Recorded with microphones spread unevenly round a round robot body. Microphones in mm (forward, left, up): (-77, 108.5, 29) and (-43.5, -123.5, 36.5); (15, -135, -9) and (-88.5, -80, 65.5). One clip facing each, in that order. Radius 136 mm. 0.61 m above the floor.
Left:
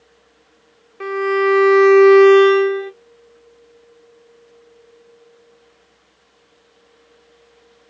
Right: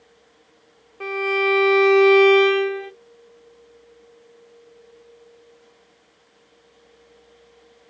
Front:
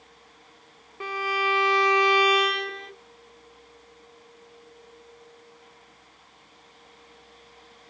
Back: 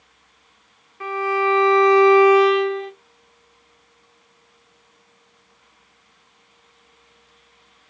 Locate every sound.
1.0 s a violin: 30° left, 0.6 m